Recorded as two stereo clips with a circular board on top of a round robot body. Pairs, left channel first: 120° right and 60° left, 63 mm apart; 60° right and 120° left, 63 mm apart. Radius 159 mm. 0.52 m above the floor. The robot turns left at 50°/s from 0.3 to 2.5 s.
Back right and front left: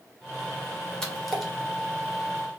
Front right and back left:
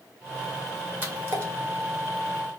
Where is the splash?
165° left, 1.4 m; by 1.5 s 140° left, 1.4 m.